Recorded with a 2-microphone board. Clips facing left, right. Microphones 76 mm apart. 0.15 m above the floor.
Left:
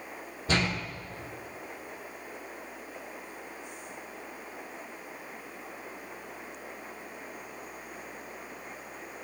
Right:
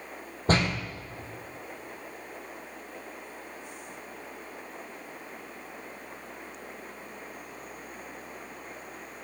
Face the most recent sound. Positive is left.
turn(degrees=-50)  # may be behind; listen again after turning